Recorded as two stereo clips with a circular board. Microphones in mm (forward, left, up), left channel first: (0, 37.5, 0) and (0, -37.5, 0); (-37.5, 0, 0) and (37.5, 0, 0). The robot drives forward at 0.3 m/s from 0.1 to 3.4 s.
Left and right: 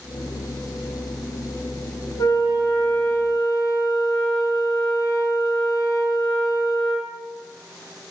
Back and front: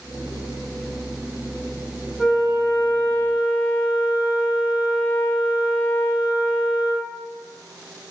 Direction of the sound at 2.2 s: 85° left.